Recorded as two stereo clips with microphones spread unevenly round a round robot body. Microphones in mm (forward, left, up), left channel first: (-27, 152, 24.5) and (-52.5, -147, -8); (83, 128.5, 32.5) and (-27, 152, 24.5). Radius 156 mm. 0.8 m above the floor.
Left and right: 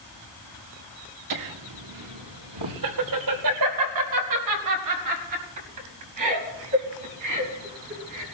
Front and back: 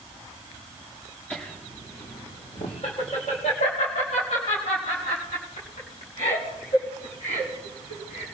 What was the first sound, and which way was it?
Laughter, 95° right.